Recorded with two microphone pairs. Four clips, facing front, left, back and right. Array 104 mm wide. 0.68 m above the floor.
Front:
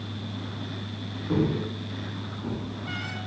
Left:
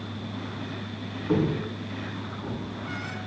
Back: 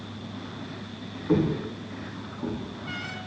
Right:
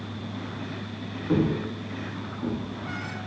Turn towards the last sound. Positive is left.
turn(degrees=-155)